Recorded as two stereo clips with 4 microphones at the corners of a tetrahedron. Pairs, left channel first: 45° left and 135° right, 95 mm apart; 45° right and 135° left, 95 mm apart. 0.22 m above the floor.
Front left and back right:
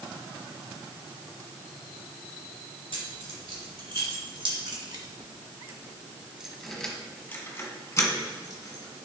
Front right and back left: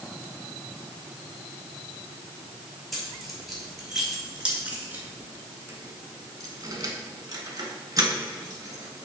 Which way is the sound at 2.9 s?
135° right.